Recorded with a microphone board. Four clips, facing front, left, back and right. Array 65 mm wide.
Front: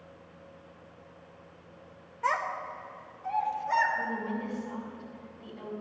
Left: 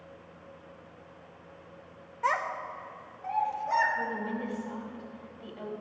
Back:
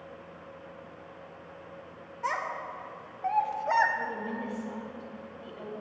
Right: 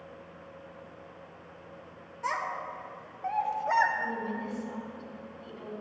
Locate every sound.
2.2 s a child speaking: 70° left, 0.5 m; by 3.9 s 145° right, 1.3 m
4.0 s a woman speaking: 110° left, 1.5 m